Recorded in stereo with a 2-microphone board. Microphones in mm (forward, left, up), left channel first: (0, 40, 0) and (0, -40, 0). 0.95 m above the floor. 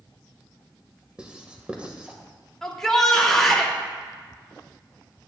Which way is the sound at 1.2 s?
15° right (ahead or behind).